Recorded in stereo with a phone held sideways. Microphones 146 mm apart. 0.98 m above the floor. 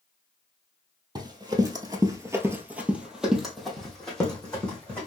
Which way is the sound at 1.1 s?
30° right (ahead or behind).